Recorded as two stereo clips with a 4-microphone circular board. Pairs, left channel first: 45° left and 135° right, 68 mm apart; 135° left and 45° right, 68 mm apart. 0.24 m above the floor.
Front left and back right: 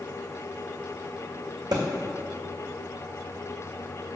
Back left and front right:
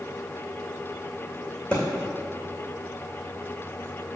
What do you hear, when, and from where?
1.7 s a thud: 155° right, 2 m